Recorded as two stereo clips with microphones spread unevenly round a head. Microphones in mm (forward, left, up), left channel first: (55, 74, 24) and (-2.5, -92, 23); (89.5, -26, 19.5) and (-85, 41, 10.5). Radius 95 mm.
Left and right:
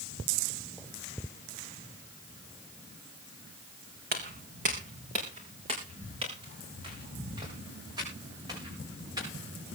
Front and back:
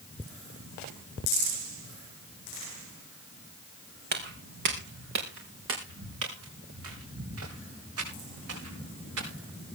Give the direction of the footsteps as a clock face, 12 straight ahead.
5 o'clock.